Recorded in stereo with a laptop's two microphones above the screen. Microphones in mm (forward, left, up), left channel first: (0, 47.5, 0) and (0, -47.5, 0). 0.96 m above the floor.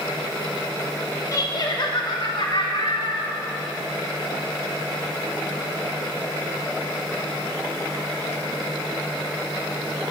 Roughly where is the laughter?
Left.